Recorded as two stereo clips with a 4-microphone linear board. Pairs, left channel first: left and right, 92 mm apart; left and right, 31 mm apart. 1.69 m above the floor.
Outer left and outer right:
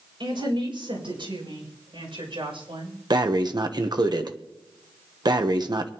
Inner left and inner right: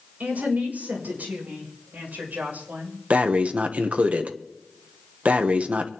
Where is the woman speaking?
65° right (ahead or behind), 6 m; by 3.0 s 75° right (ahead or behind), 7 m.